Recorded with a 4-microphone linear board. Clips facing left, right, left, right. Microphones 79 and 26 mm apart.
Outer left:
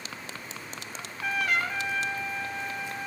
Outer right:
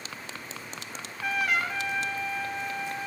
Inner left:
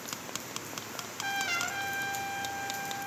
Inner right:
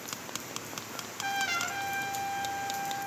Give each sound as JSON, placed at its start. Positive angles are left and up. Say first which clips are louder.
{"t": 0.9, "sound": "a trumpet", "louder": "even, inner right 1 dB", "side_deg": 0, "distance_m": 0.9}